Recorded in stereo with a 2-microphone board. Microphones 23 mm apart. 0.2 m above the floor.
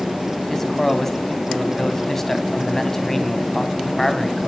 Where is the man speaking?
15° left (ahead or behind), 1.0 m.